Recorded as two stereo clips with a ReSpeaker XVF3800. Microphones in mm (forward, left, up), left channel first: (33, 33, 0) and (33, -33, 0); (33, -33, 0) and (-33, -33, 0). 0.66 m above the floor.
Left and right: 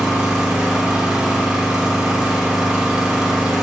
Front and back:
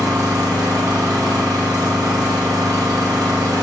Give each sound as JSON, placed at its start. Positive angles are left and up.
{"t": 0.0, "sound": "an engine running", "azimuth_deg": -165, "distance_m": 0.8}